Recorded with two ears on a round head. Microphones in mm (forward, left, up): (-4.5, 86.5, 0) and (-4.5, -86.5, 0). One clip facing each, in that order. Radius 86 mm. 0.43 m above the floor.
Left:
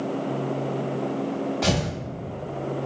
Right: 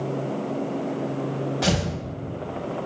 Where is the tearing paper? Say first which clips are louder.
Right 1 dB; 10° right (ahead or behind), 0.6 m.